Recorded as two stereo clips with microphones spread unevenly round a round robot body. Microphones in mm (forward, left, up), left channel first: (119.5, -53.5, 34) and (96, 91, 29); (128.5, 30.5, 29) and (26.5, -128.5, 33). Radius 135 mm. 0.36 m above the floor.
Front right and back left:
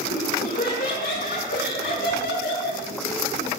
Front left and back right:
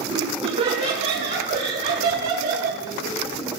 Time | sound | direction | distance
0.1 | laughter | 65° right | 4.5 m